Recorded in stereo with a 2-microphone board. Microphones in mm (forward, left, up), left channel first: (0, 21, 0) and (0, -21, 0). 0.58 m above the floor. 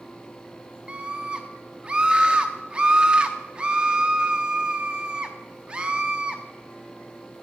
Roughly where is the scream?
Right.